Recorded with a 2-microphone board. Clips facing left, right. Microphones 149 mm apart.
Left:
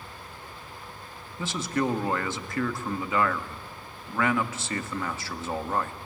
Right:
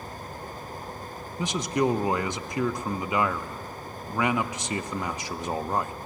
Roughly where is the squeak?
I don't hear a squeak.